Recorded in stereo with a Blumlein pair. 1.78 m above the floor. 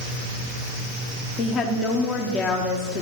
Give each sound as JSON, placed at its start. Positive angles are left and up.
{"t": 1.4, "sound": "a woman speaking", "azimuth_deg": 30, "distance_m": 1.1}